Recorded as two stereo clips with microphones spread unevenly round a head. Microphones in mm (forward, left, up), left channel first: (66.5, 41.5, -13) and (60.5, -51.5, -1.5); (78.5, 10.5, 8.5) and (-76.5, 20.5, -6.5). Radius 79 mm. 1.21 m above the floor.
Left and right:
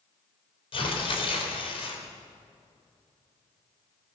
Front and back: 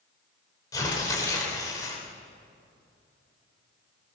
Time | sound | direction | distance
0.7 | tearing paper | 65° left | 4 m